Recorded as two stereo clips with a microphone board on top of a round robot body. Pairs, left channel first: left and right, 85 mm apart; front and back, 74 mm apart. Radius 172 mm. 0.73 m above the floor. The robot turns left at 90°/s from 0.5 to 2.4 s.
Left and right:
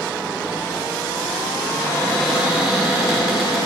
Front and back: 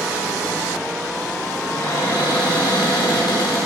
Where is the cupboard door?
60° left, 4 m; by 3.6 s 5° right, 4 m.